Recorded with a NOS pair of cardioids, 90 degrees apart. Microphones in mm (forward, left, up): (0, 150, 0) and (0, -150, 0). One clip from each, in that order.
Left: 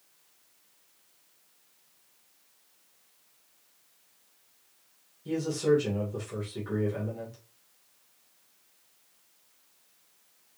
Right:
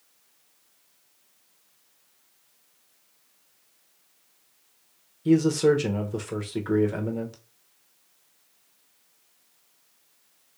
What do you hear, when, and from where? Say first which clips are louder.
5.2 s a man speaking: right 6 dB; 60° right, 1.2 m